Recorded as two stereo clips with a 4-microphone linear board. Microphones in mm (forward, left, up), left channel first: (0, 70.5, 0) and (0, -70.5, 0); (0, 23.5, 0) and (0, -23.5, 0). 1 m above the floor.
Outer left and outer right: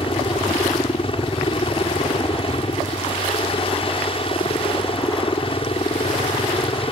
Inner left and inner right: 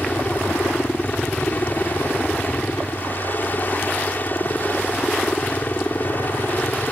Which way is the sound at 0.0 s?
40° left (ahead or behind).